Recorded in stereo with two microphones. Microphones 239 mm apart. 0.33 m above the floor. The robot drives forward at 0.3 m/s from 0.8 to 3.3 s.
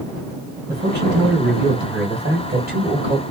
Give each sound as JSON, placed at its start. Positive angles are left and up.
{"t": 0.7, "sound": "a man speaking", "side_deg": -45, "distance_m": 2.0}